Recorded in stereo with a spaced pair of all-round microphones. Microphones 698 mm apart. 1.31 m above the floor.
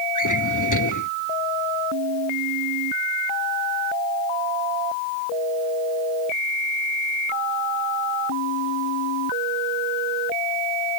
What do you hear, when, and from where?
0.1 s a drawer: 25° left (ahead or behind)